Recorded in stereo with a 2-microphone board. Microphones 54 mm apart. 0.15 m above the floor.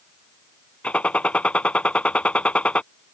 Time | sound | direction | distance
0.8 | a gunshot | 25° left (ahead or behind) | ?